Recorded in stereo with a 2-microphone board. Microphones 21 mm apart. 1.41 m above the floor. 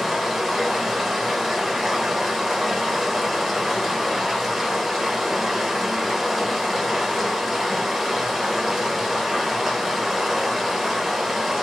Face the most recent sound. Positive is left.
turn(degrees=-5)  # may be behind; listen again after turning